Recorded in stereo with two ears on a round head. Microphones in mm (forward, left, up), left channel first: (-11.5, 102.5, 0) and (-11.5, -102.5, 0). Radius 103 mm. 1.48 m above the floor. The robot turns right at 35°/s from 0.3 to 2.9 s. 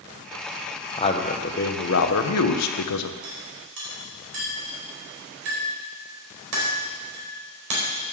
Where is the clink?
70° right (ahead or behind), 4 m.